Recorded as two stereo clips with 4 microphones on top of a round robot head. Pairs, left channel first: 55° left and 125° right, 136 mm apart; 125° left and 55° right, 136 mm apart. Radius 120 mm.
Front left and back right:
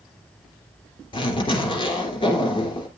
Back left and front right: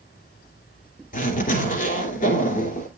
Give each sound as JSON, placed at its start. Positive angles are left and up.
{"t": 1.1, "sound": "a zipper", "azimuth_deg": 110, "distance_m": 3.0}